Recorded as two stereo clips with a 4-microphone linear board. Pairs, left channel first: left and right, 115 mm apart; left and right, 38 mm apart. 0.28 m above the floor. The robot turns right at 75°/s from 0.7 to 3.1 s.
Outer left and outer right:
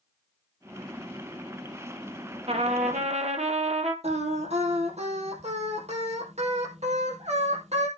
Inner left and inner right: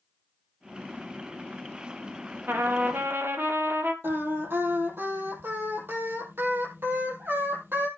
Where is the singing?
70° right (ahead or behind), 3 m.